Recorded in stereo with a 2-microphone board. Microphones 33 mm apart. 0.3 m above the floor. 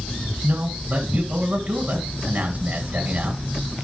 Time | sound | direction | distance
0.4 | a man speaking | 55° right (ahead or behind) | 2 m